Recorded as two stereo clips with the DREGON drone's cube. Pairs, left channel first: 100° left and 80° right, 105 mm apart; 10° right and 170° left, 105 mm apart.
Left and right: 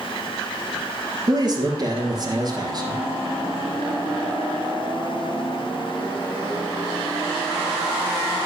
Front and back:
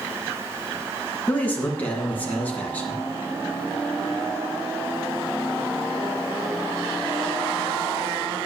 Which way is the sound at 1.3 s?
80° right.